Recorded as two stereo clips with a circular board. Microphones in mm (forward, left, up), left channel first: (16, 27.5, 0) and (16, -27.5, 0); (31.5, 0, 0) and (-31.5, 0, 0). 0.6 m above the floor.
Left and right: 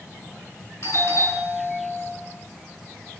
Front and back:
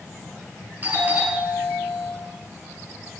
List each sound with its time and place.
0.8 s a doorbell: 120° left, 8 m